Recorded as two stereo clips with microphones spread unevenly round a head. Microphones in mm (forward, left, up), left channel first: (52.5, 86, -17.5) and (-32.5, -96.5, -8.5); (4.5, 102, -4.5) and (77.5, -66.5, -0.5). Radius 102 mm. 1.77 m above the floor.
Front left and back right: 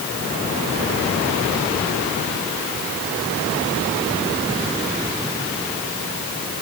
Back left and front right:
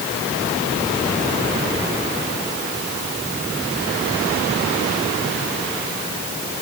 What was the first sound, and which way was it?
Only background noise.